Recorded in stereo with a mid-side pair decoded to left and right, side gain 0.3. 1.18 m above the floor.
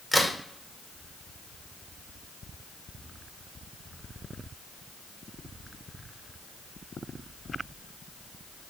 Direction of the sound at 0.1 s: 5° left.